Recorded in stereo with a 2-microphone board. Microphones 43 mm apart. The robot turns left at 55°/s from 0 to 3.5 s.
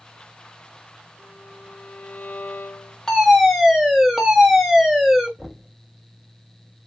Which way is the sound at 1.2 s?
175° left.